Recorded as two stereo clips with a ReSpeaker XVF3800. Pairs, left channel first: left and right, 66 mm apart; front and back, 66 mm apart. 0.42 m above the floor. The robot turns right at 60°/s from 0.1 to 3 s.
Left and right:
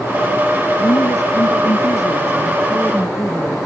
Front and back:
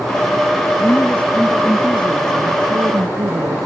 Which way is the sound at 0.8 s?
50° left.